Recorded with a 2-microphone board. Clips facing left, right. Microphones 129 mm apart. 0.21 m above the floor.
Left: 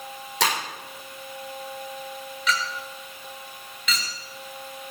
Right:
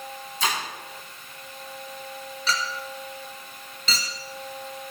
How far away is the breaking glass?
About 6.5 m.